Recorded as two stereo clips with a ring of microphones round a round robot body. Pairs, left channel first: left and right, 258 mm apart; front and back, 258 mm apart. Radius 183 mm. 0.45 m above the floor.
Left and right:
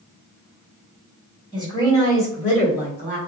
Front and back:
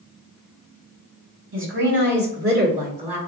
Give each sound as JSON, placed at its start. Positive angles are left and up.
{"t": 1.5, "sound": "a woman speaking", "azimuth_deg": 165, "distance_m": 1.8}